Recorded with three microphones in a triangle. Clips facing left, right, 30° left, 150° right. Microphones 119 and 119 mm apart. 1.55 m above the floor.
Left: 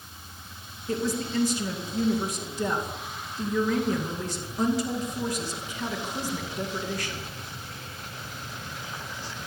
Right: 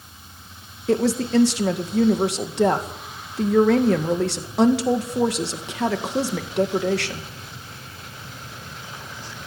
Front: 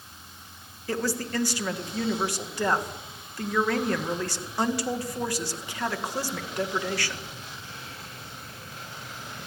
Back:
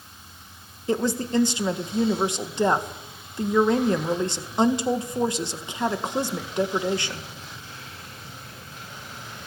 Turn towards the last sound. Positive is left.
turn(degrees=-80)